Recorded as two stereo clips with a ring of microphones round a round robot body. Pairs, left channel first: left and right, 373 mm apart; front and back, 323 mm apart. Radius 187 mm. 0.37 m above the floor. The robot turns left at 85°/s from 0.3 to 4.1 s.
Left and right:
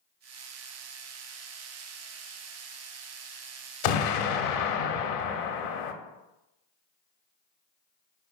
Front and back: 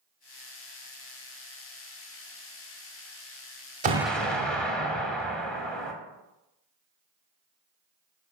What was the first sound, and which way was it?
An explosion, 110° left.